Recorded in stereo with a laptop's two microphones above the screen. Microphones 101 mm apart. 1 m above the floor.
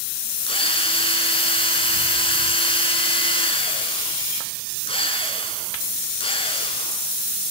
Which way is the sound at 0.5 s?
65° left (ahead or behind).